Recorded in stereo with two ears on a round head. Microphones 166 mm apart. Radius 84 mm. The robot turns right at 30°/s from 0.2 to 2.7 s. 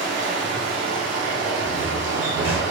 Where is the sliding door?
5° right (ahead or behind), 0.9 m; by 2.6 s 35° right (ahead or behind), 0.9 m.